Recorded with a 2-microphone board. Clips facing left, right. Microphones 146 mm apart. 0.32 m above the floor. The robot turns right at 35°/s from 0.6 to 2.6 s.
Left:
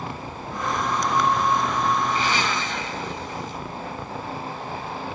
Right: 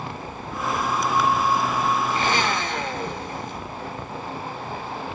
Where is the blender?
45° right (ahead or behind), 1.0 m; by 3.6 s 55° right (ahead or behind), 1.0 m.